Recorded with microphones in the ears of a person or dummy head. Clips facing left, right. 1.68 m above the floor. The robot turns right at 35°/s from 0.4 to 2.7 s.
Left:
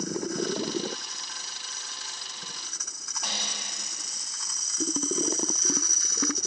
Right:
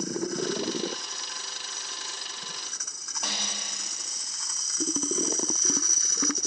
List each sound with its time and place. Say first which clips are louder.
3.2 s a snare drum: right 1 dB; 60° right (ahead or behind), 2.0 m